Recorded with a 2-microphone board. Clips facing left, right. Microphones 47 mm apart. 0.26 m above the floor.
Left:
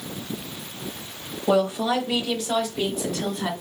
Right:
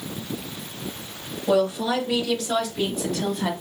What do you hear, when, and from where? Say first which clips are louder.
1.5 s a woman speaking: even; 25° left (ahead or behind), 1.0 m; by 3.5 s centre (ahead or behind), 1.3 m